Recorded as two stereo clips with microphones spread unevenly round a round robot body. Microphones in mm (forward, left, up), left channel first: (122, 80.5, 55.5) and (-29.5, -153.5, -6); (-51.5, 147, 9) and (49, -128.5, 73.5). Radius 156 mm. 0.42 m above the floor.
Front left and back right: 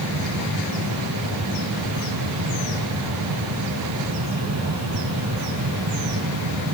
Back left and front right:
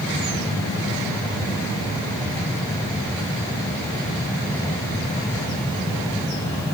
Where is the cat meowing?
I don't hear a cat meowing.